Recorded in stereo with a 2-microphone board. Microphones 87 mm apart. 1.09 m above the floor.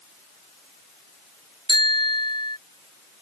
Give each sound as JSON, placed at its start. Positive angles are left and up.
{"t": 1.7, "sound": "a bicycle bell", "side_deg": 60}